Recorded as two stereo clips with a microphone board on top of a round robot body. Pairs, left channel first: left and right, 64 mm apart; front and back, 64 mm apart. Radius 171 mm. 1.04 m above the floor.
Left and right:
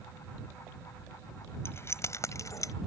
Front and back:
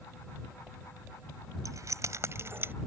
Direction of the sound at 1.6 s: 140° left.